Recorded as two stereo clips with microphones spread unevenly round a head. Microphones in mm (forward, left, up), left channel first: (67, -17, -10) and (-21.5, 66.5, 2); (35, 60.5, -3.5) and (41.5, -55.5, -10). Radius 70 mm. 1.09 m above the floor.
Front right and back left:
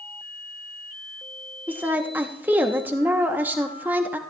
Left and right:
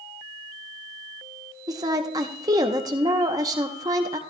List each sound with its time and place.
1.7 s a woman speaking: 145° right, 0.8 m